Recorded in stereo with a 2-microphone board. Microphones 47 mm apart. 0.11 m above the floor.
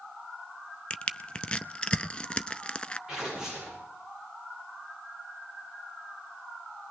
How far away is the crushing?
About 0.6 m.